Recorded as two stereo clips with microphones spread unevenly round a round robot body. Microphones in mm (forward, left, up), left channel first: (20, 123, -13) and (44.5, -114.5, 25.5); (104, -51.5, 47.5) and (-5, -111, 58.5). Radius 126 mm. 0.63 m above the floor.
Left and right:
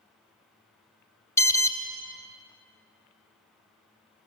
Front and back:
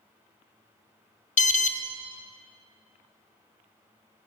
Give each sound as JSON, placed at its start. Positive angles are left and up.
{"t": 1.4, "sound": "an alarm", "azimuth_deg": 20, "distance_m": 1.0}